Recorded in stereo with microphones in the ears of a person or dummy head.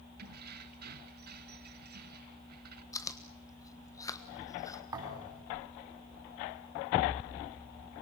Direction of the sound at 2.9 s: 20° left (ahead or behind).